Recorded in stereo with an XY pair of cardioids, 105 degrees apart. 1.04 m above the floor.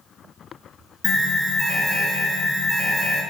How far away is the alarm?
About 1.6 m.